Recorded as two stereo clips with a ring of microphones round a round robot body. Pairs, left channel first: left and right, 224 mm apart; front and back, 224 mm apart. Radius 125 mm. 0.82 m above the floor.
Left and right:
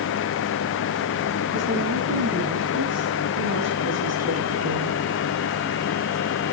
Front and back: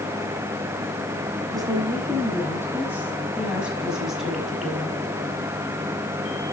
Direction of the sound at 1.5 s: 105° right.